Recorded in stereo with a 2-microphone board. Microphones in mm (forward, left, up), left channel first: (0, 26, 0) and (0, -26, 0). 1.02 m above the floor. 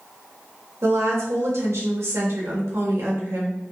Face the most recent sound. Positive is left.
turn(degrees=-70)  # may be behind; listen again after turning